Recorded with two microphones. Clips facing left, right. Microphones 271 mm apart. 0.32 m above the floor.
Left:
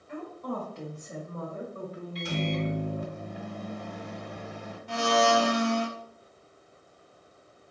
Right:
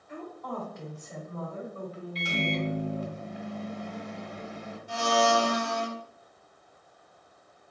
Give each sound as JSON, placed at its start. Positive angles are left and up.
{"t": 0.1, "sound": "a woman speaking", "side_deg": 35, "distance_m": 1.3}
{"t": 2.1, "sound": "a microwave", "side_deg": 50, "distance_m": 1.6}
{"t": 4.9, "sound": "a blender", "side_deg": 65, "distance_m": 0.7}